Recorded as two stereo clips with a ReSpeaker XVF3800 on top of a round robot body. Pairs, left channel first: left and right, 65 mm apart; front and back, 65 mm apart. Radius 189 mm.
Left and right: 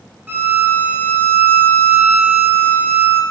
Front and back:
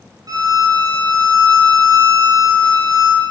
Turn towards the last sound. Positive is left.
turn(degrees=-150)